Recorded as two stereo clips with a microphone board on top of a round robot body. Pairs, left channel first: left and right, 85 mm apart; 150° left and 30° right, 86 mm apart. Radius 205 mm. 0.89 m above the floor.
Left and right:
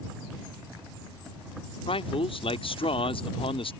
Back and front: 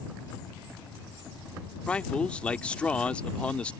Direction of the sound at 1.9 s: 70° left.